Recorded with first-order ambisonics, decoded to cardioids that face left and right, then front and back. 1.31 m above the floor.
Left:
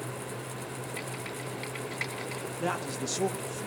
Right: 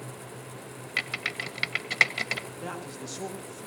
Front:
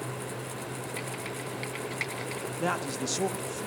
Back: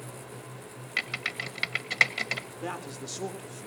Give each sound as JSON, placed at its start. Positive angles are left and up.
{"t": 1.0, "sound": "typing on a keyboard", "azimuth_deg": -125, "distance_m": 1.5}
{"t": 2.6, "sound": "a man speaking", "azimuth_deg": 25, "distance_m": 2.0}